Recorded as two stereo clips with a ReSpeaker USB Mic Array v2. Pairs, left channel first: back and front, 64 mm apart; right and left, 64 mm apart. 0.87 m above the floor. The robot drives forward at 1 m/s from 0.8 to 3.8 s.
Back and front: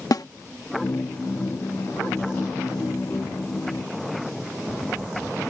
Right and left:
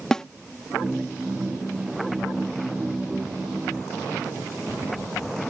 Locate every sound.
0.1 s a snare drum: 170° right